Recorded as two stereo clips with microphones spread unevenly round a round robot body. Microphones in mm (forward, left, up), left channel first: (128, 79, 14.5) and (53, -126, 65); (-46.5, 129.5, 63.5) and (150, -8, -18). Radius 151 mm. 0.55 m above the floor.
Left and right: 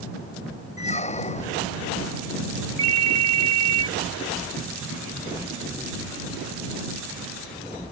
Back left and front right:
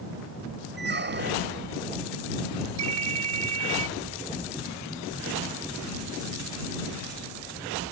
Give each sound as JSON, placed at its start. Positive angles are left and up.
{"t": 0.8, "sound": "a squeak", "azimuth_deg": 10}
{"t": 2.8, "sound": "a ringtone", "azimuth_deg": -45}